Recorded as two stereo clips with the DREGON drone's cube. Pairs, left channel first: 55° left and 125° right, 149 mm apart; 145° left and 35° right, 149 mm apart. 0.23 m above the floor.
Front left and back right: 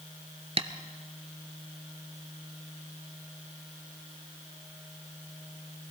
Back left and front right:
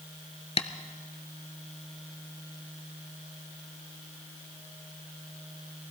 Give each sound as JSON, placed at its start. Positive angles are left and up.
{"t": 0.6, "sound": "tapping", "azimuth_deg": -170, "distance_m": 0.7}